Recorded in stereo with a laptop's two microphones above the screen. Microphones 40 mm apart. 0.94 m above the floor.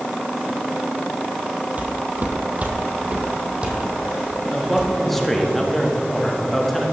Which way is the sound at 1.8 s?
45° right (ahead or behind).